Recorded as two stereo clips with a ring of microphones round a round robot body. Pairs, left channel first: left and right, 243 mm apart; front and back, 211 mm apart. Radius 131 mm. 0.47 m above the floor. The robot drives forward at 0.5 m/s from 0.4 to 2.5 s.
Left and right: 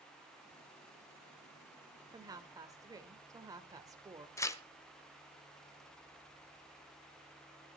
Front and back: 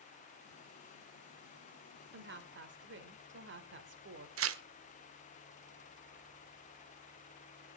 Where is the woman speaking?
160° right, 1.6 m; by 4.3 s 165° right, 1.8 m.